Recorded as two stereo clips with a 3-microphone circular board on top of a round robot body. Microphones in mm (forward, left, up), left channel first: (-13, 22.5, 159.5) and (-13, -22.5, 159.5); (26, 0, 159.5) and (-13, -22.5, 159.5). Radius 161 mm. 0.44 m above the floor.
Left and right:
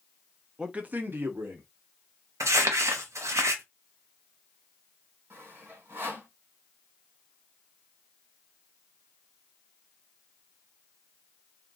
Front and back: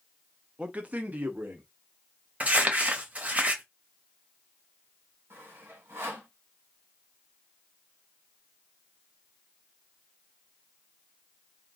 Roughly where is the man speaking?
Behind right.